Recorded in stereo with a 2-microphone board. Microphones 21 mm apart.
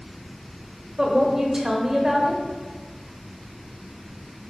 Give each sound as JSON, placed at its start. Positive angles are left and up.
{"t": 1.0, "sound": "a woman speaking", "side_deg": -25, "distance_m": 1.4}